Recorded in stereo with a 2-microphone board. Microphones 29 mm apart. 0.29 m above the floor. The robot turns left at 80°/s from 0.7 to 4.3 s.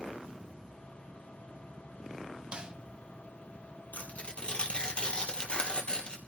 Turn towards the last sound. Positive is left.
turn(degrees=35)  # may be behind; listen again after turning